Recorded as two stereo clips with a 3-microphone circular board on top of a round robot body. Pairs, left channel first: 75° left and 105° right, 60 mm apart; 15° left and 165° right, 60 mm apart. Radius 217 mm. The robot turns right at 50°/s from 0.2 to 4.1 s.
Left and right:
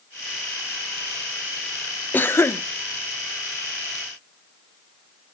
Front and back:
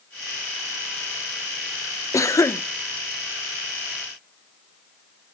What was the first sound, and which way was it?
A cough, 20° left.